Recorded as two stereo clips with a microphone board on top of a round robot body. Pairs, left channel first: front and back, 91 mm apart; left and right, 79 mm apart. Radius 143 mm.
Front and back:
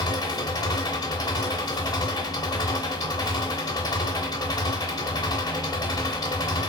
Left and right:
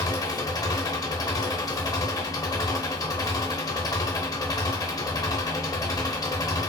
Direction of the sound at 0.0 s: 45° left.